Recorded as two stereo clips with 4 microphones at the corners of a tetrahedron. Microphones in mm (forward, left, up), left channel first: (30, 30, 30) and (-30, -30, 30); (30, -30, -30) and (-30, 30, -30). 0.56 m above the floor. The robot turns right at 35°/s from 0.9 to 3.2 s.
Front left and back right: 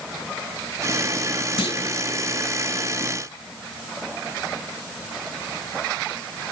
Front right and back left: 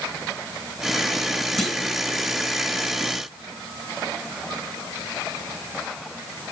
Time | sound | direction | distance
1.6 | a clunk | 45° left | 1.8 m